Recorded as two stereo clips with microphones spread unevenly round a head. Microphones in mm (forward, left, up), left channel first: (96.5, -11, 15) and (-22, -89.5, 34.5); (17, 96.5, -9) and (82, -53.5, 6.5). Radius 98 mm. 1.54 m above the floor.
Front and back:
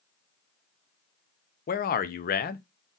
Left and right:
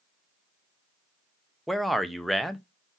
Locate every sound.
1.7 s a man speaking: 20° left, 0.6 m